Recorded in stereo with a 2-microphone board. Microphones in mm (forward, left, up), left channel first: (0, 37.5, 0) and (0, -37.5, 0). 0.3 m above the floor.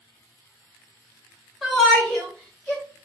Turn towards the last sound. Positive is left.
turn(degrees=15)  # may be behind; listen again after turning